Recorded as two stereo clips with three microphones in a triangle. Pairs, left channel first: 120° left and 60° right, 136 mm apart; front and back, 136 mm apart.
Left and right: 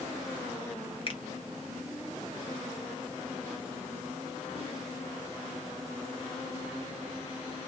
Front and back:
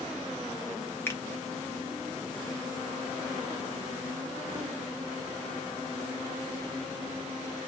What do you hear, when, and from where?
1.1 s a finger snap: 75° left, 1.1 m